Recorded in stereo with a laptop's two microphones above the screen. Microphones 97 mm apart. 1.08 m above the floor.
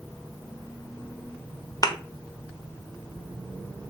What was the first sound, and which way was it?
A thud, 40° left (ahead or behind).